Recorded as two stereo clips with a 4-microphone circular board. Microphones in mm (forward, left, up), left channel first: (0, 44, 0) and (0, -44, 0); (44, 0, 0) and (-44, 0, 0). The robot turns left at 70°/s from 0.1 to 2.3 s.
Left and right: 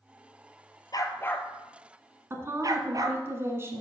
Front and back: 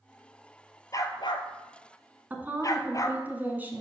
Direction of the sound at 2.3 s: 125° right.